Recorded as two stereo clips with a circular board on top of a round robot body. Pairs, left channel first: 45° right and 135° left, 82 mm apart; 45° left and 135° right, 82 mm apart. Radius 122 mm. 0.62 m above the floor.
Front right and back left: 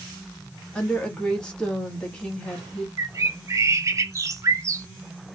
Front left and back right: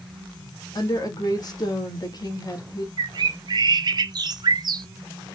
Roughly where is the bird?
Behind.